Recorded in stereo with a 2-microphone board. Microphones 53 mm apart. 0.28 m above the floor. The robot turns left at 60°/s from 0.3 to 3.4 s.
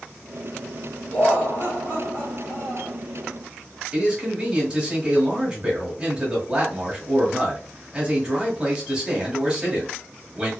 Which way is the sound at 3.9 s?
15° right (ahead or behind).